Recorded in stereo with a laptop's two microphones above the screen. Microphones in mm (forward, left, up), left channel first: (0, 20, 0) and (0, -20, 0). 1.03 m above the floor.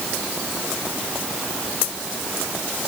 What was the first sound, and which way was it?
Only background noise.